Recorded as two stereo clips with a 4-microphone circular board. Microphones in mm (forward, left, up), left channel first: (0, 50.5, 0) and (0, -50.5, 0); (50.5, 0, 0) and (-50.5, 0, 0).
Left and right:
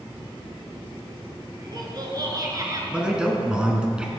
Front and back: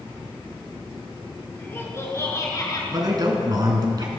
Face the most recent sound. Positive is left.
turn(degrees=-165)